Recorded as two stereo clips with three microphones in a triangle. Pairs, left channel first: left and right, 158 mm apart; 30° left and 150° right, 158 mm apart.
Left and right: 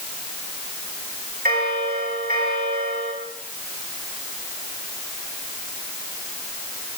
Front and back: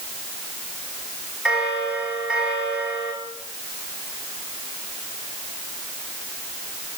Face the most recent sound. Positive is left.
turn(degrees=-65)